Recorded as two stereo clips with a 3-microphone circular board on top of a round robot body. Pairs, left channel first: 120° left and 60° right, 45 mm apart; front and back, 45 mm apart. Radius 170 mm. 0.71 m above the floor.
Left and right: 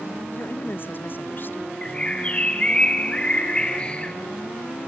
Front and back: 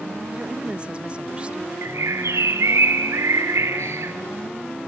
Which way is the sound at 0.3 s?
125° left.